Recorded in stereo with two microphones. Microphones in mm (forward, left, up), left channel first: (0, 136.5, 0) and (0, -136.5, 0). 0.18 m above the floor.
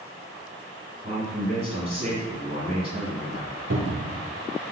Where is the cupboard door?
70° right (ahead or behind), 0.8 m.